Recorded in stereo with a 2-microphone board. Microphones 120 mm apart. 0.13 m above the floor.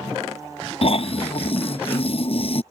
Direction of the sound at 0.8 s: 55° left (ahead or behind).